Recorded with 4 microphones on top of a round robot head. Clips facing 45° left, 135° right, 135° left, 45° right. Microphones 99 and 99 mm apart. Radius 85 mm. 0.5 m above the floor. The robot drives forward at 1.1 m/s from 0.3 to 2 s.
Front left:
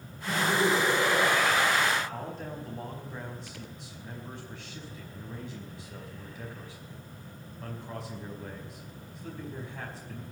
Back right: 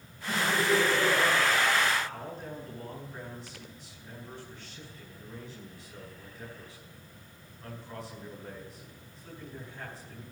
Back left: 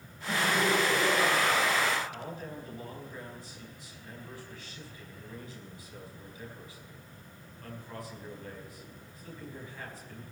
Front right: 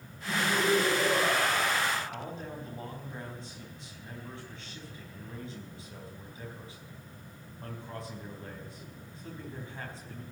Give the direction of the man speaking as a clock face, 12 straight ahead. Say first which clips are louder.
Front left 2 dB, front right 1 dB; 11 o'clock.